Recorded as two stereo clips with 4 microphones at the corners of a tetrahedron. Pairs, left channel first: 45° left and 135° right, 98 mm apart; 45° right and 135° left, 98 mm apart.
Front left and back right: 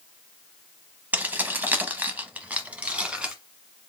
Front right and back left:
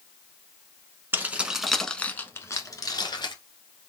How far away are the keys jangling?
About 0.7 m.